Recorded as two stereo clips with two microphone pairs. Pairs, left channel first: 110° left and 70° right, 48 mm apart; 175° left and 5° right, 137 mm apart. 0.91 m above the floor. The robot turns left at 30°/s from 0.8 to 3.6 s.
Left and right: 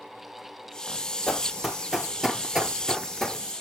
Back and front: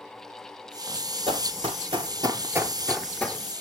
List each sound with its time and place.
1.3 s running footsteps: 30° left, 1.4 m; by 3.4 s 155° left, 0.9 m